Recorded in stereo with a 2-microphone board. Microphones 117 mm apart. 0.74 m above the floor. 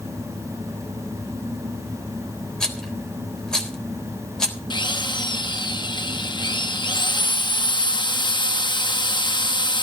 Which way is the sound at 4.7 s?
45° left (ahead or behind).